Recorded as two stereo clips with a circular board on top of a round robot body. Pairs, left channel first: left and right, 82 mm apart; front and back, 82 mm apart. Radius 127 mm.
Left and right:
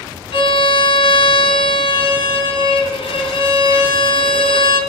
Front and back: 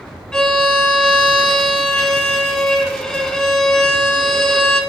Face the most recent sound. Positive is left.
turn(degrees=80)